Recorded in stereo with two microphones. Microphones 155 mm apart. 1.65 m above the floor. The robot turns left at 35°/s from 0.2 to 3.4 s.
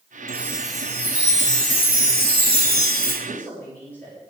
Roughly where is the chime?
Behind.